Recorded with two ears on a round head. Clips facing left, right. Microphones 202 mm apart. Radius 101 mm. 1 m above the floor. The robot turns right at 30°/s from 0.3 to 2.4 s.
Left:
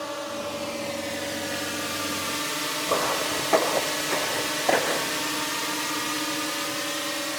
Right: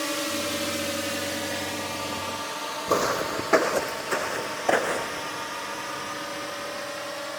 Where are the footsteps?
30° right (ahead or behind); by 5.3 s centre (ahead or behind).